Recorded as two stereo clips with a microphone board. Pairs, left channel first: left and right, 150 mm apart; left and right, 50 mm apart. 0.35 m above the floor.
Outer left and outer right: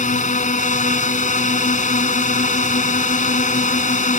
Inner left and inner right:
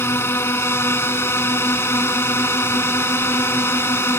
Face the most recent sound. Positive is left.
turn(degrees=55)  # may be behind; listen again after turning